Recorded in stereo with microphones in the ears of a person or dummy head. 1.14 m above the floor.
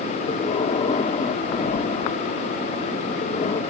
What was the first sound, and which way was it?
Breathing, 30° left (ahead or behind).